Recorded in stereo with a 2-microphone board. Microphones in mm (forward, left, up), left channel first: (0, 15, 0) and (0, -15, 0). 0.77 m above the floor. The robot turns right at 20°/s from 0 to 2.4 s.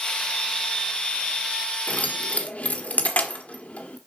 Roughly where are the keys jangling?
Left.